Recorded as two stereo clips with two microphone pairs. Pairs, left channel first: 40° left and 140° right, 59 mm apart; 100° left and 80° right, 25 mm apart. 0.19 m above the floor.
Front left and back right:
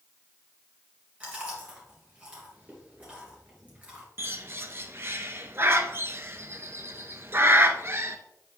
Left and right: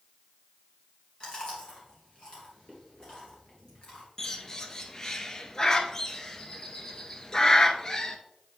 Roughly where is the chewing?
Behind left.